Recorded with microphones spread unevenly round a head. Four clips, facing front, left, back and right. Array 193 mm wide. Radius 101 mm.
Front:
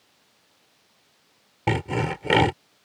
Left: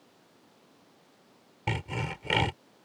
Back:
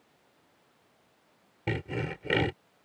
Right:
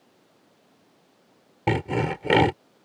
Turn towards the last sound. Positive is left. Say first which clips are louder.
# right 10 dB, front 8 dB
turn(degrees=-65)